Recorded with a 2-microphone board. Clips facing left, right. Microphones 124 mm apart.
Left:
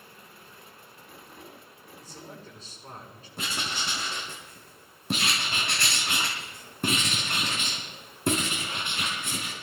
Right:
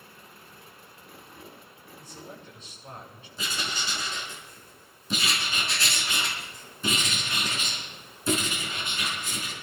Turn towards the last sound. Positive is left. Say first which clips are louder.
# even
turn(degrees=65)  # may be behind; listen again after turning